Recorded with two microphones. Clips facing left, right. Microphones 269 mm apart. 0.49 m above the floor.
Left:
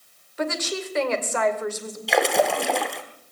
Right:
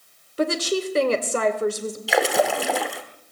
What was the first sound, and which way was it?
A woman speaking, 35° right (ahead or behind).